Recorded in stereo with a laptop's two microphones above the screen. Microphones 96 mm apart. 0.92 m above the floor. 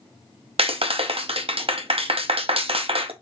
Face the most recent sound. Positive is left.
turn(degrees=-80)